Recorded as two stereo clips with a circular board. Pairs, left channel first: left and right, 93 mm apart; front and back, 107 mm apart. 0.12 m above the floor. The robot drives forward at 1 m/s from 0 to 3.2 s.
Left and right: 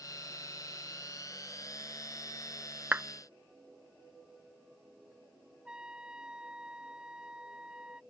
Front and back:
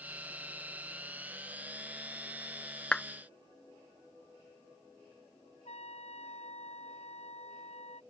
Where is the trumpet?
10° right.